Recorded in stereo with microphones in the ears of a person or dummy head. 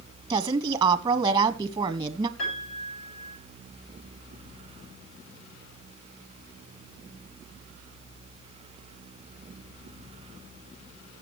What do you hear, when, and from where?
0.3 s a woman speaking: 15° right (ahead or behind), 1.2 m
2.4 s a piano: 85° left, 6.5 m